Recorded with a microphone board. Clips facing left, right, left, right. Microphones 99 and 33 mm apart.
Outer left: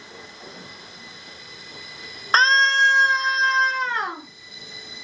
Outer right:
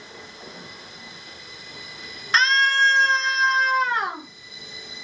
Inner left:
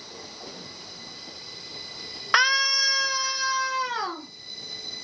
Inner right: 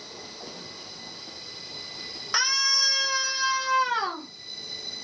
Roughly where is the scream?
Left.